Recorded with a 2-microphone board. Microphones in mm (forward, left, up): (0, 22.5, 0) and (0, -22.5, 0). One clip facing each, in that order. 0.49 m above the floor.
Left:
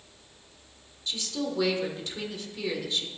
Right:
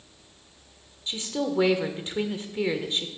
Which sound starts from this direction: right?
A woman speaking, at 1.1 s.